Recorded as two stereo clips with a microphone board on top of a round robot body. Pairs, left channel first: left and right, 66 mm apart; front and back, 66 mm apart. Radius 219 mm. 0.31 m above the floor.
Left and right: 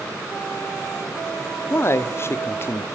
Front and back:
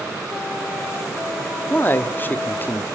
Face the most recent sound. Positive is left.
turn(degrees=55)